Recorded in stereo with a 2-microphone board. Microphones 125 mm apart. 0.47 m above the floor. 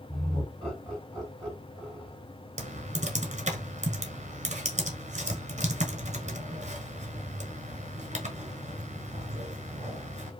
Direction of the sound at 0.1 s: 5° left (ahead or behind).